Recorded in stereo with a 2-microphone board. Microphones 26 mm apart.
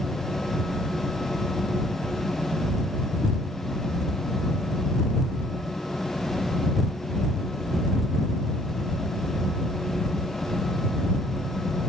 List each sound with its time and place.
Only background noise.